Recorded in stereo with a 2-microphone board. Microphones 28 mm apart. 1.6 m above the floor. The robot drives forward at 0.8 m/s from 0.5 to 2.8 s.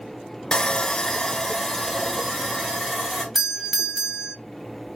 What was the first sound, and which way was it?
Sawing, 20° left (ahead or behind).